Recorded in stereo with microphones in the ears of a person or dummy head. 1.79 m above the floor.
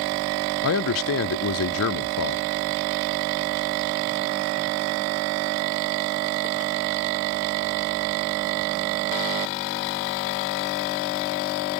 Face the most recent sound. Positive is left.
turn(degrees=75)  # may be behind; listen again after turning